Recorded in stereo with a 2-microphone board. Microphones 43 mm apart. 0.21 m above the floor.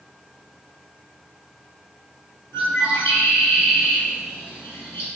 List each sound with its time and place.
2.5 s a bird: 60° left (ahead or behind), 1.8 m